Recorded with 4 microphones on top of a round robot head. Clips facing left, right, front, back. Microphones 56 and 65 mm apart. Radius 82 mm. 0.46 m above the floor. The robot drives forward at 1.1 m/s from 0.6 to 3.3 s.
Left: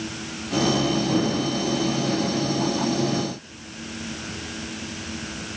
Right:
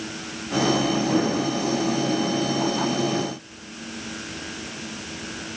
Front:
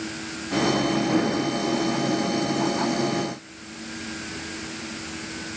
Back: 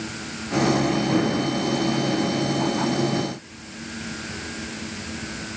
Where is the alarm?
No alarm in this recording.